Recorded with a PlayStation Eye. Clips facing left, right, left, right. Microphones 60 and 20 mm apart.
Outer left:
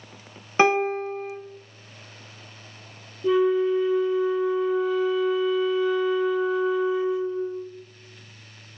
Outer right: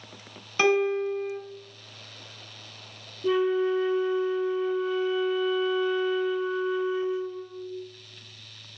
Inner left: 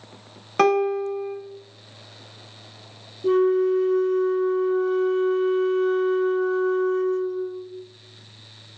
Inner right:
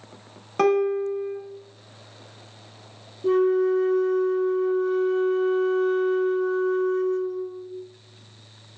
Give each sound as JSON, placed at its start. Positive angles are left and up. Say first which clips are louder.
{"t": 0.6, "sound": "a piano", "louder": "outer left 2 dB, inner left 1 dB", "side_deg": 30, "distance_m": 0.5}
{"t": 3.2, "sound": "a flute", "louder": "outer left 3 dB, inner left 1 dB", "side_deg": 0, "distance_m": 1.0}